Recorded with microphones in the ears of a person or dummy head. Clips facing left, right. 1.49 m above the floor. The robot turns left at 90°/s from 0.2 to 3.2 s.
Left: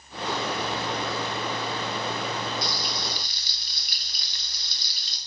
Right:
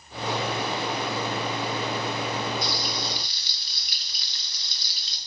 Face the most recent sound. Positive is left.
turn(degrees=75)